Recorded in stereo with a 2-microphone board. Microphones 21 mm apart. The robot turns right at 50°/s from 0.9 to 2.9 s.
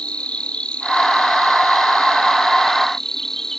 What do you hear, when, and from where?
0.0 s an insect: 65° left; by 3.6 s 165° left